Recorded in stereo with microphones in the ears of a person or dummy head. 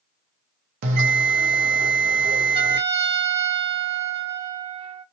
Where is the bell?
50° right (ahead or behind), 0.6 m.